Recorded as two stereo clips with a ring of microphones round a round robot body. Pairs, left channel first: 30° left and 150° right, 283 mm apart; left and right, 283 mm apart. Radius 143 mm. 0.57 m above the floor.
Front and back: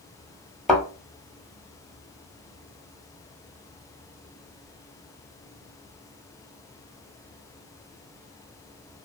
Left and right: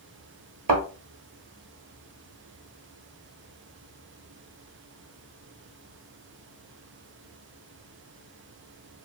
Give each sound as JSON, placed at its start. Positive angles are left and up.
{"t": 0.7, "sound": "a thud", "azimuth_deg": -60, "distance_m": 1.1}